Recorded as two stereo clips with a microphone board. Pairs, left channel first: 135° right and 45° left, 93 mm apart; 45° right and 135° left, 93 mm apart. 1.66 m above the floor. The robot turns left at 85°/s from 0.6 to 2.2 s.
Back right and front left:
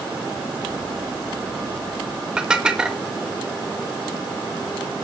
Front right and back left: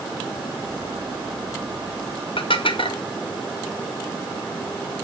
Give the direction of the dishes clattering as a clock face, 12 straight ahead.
1 o'clock.